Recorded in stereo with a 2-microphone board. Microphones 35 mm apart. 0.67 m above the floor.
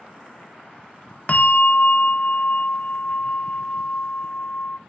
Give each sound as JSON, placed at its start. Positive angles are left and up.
{"t": 1.3, "sound": "a bell", "side_deg": 45, "distance_m": 0.8}